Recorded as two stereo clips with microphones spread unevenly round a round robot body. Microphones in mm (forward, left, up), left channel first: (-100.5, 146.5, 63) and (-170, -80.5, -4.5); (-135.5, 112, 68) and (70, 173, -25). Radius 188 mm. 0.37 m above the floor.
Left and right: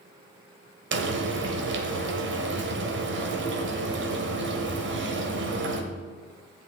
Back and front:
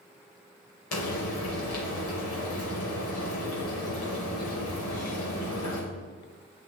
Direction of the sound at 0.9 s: 115° right.